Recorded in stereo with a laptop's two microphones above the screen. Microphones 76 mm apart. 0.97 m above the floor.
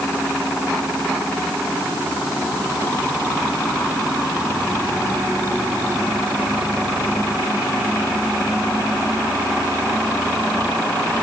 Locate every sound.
Only background noise.